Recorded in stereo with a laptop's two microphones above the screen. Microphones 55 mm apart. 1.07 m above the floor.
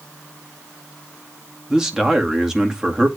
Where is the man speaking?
10° right (ahead or behind), 2 m.